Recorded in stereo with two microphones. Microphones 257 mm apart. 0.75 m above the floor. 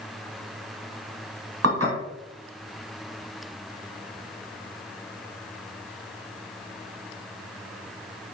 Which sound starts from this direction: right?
Dishes clattering, at 1.6 s.